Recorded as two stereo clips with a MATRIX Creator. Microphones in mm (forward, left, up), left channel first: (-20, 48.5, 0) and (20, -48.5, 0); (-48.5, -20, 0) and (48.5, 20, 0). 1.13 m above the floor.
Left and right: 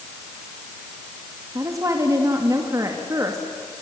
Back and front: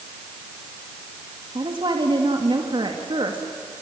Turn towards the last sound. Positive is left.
turn(degrees=-10)